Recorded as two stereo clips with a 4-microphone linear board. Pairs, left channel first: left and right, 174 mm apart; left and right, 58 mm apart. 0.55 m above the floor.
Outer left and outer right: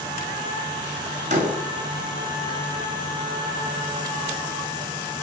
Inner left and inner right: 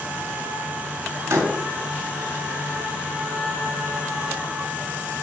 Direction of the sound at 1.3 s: 45° right (ahead or behind).